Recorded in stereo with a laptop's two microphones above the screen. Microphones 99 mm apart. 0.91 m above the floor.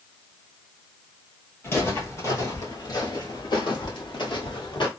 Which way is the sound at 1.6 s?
25° left (ahead or behind).